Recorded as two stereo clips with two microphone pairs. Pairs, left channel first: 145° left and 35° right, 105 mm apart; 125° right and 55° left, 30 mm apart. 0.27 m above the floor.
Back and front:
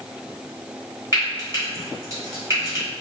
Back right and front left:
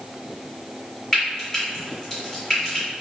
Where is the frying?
65° right, 1.5 m.